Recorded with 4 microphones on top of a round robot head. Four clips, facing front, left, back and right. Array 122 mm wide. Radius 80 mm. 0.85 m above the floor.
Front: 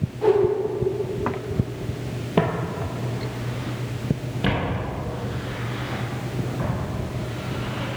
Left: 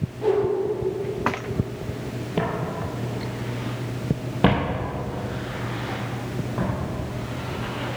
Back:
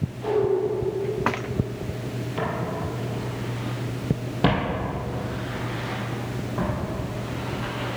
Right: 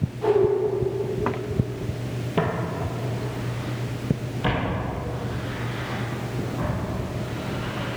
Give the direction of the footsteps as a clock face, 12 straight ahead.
12 o'clock.